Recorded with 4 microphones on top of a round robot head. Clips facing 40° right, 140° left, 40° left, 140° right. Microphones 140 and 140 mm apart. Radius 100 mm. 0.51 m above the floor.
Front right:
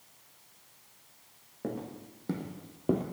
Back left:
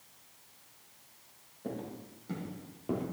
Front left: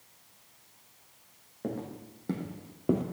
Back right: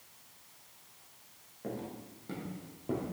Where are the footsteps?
5° right, 2.5 m; by 3.0 s 15° left, 1.0 m.